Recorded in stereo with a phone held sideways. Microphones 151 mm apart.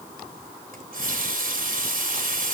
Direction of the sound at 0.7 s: 75° right (ahead or behind).